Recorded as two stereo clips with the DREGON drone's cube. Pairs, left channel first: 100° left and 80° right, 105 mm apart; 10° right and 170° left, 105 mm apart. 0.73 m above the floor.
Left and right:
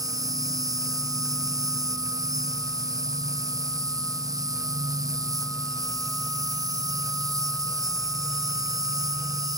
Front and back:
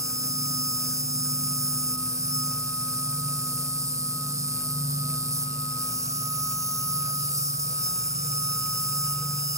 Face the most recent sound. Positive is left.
turn(degrees=-130)